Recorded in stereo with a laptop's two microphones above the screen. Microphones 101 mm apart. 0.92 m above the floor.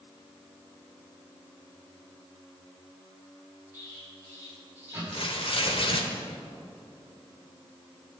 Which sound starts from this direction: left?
Tearing paper, at 5.1 s.